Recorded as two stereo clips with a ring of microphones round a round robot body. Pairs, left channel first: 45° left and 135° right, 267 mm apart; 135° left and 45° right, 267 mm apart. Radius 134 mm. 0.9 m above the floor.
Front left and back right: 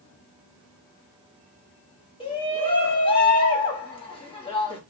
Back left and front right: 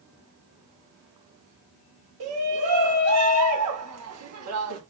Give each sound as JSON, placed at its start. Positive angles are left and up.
{"t": 2.2, "sound": "a shout", "azimuth_deg": -25, "distance_m": 1.4}